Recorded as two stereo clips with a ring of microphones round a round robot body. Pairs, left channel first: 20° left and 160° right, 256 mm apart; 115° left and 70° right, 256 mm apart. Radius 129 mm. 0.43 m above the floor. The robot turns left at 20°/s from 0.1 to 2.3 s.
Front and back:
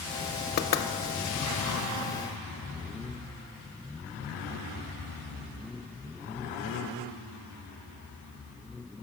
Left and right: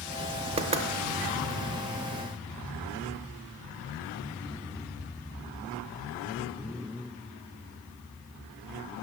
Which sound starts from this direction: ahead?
Knocking, at 0.6 s.